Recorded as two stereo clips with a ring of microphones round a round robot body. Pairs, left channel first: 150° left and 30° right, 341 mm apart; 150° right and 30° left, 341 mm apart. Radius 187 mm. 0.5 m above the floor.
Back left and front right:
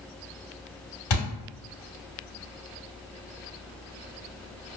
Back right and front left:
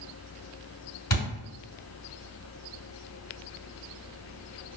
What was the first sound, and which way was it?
A thud, 145° left.